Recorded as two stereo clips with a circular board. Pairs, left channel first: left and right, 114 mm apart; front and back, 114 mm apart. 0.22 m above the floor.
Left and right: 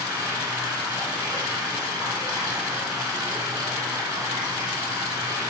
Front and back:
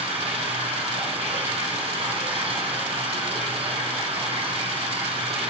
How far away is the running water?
About 2.5 m.